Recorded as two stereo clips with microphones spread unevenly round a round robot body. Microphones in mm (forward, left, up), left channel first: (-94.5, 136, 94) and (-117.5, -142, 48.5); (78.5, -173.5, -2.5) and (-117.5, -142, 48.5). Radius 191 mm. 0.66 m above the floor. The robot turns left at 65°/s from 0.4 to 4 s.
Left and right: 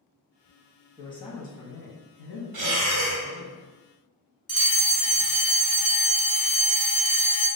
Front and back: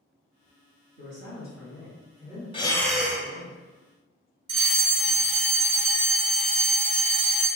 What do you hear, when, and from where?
1.0 s a man speaking: 175° left, 1.4 m; by 3.5 s 5° left, 1.4 m
2.5 s breathing: 85° right, 0.7 m; by 3.3 s 130° right, 0.7 m
4.5 s a fire alarm: 175° right, 1.6 m